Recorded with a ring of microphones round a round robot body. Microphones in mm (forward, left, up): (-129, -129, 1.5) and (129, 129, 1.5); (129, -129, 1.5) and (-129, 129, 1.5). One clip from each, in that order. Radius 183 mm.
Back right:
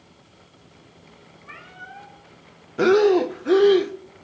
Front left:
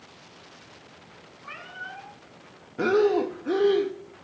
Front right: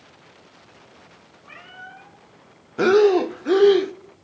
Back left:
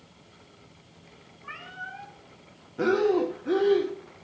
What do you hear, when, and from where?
1.4 s a cat meowing: 70° left, 5 m
2.8 s breathing: 75° right, 0.6 m